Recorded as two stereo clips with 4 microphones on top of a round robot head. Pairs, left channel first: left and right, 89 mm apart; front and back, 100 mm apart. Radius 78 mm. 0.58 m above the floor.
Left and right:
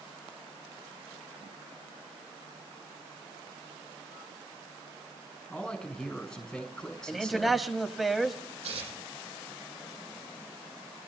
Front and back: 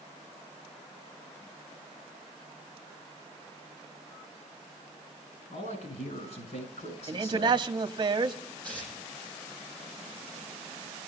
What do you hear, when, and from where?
5.5 s a man speaking: 5° left, 6.5 m
7.1 s a man speaking: straight behind, 0.9 m
8.6 s tearing paper: 80° right, 7 m